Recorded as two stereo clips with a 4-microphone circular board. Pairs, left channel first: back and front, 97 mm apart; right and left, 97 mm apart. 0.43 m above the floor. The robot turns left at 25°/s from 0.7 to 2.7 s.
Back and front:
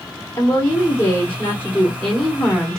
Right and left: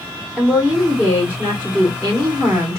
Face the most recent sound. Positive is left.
turn(degrees=100)